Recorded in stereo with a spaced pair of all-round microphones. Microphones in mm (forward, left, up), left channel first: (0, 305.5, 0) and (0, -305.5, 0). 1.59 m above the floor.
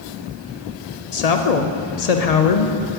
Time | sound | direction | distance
1.1 | a woman speaking | 80° left | 0.8 m